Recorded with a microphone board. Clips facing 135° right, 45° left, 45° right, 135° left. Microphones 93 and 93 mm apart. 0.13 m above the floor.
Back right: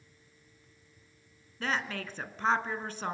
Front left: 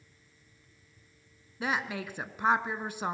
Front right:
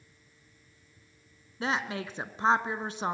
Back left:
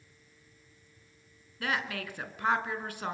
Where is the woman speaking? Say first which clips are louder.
Front left 1 dB, front right 2 dB; 15° right, 1.1 m.